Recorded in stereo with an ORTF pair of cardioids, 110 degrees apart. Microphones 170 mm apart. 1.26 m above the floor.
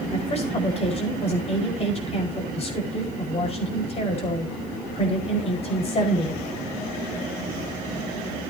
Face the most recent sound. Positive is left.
turn(degrees=35)